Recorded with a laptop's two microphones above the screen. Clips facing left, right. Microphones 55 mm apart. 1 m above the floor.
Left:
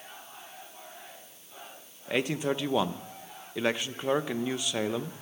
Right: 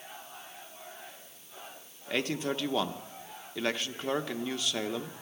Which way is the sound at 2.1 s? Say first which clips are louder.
Left 3 dB; 15° left (ahead or behind).